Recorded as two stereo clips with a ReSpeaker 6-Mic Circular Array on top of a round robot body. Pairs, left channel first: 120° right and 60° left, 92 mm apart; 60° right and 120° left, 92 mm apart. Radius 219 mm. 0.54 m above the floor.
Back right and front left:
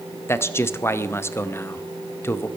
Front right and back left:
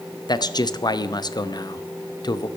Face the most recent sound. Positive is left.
turn(degrees=-65)